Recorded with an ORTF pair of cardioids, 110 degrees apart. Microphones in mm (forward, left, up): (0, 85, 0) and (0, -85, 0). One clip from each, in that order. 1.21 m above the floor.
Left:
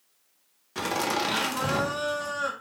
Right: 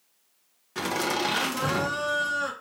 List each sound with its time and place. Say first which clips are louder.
0.8 s laughter: even; 5° left, 1.1 m